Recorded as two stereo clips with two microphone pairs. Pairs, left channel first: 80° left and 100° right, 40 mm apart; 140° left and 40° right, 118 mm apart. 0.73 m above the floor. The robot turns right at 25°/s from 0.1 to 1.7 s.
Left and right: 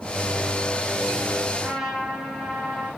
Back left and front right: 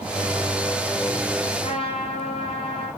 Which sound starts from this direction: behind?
A trumpet, at 1.6 s.